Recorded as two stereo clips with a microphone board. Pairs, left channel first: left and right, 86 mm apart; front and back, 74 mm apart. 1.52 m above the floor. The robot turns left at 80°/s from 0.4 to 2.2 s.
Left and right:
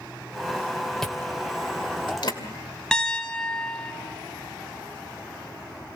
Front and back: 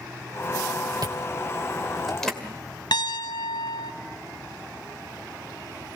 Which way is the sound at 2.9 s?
5° left.